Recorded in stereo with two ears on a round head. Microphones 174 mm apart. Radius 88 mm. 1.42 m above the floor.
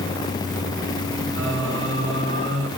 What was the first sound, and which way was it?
Singing, 70° right (ahead or behind).